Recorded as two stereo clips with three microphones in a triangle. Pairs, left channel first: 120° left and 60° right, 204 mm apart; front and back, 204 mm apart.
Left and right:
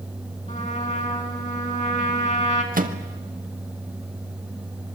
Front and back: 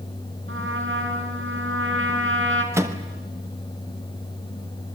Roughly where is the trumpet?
Behind.